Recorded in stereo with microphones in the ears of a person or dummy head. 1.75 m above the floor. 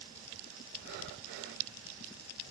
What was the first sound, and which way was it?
Breathing, 55° right (ahead or behind).